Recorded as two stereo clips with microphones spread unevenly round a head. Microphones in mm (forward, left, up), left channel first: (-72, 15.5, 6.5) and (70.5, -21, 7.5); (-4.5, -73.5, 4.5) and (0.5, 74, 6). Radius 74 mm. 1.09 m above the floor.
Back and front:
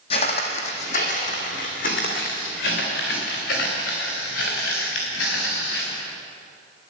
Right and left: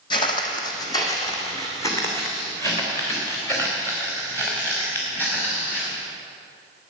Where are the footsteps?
145° right, 1.9 m; by 6.0 s 170° right, 6.5 m.